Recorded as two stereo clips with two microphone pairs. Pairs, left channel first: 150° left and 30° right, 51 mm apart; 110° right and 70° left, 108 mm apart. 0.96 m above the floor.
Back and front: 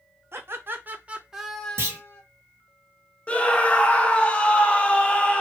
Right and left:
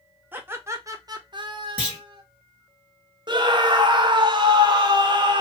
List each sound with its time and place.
0.3 s laughter: straight ahead, 0.9 m; by 2.2 s 105° left, 0.7 m
1.8 s a clunk: 5° right, 1.6 m
3.3 s a scream: 85° left, 0.7 m